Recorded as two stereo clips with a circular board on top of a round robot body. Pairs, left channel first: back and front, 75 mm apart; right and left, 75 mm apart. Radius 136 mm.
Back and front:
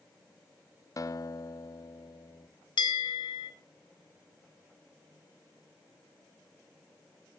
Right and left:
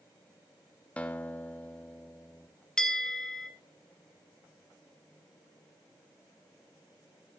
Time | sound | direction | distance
1.0 | a guitar | 155° right | 1.2 m
2.8 | a bell | 170° right | 1.9 m